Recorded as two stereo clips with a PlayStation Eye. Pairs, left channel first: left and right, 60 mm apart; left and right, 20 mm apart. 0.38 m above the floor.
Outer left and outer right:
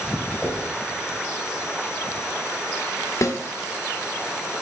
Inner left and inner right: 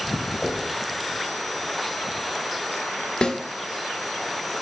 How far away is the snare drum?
About 1.0 m.